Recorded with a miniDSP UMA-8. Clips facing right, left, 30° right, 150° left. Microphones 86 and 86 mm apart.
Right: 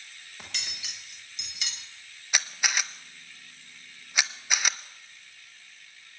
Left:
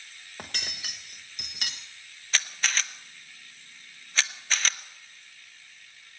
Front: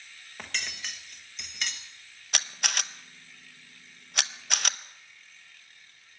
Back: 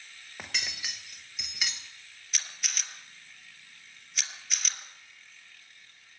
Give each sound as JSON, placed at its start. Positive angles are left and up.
{"t": 0.4, "sound": "cutlery clinking", "azimuth_deg": 70, "distance_m": 1.2}
{"t": 2.3, "sound": "a camera shutter", "azimuth_deg": -15, "distance_m": 0.5}